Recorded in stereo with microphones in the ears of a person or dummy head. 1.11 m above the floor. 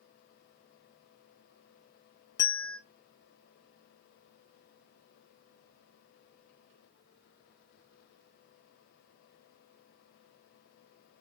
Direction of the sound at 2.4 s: 15° left (ahead or behind).